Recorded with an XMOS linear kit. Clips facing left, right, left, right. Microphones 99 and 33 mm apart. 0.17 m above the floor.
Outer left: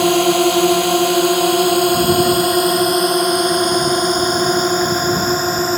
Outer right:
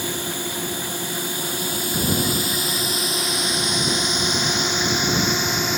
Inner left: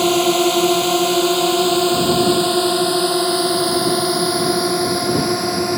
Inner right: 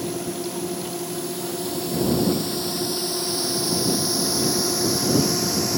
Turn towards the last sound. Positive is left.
turn(degrees=40)  # may be behind; listen again after turning